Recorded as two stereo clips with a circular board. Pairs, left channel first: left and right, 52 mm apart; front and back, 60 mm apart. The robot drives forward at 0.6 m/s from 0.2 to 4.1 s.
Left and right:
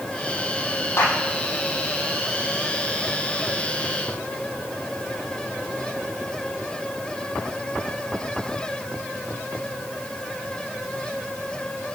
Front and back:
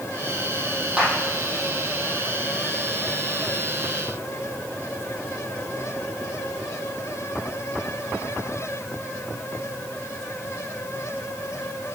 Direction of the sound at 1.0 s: 105° left.